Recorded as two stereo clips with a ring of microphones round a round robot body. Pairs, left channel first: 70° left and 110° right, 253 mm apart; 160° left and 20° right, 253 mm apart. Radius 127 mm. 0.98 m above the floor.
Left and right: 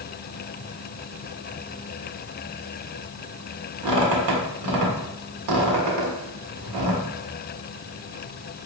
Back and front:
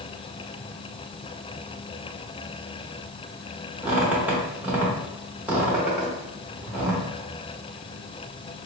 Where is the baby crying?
I don't hear a baby crying.